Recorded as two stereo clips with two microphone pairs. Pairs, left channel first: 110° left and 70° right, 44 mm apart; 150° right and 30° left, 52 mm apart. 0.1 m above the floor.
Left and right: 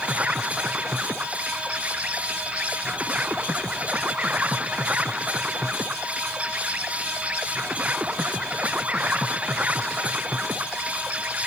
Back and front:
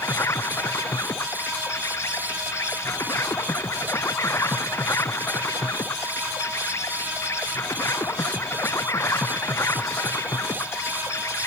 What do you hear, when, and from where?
0.0 s an insect: 130° right